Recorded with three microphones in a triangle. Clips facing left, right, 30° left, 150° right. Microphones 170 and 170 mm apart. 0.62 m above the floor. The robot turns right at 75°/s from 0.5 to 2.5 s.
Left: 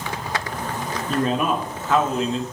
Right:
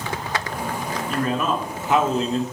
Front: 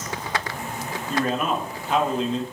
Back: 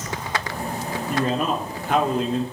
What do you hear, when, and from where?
1.1 s a man speaking: 135° left, 1.7 m; by 2.4 s 120° right, 1.7 m